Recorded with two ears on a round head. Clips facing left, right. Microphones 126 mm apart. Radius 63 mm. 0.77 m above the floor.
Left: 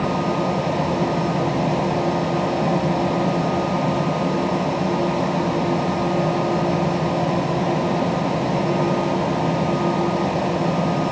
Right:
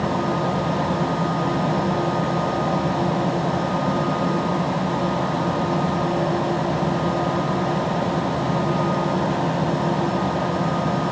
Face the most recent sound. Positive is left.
No sound to turn to.